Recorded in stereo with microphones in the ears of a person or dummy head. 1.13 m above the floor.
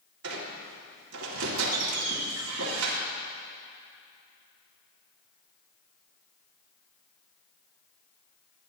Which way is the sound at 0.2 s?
90° right.